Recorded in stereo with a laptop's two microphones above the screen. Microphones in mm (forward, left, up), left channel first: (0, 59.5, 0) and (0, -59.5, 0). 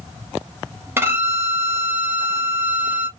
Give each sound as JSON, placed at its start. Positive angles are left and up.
{"t": 1.0, "sound": "a violin", "side_deg": -20, "distance_m": 1.1}